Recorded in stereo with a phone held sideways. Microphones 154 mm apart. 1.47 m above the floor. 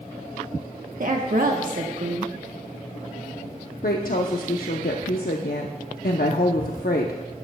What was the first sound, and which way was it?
A woman speaking, 65° right (ahead or behind).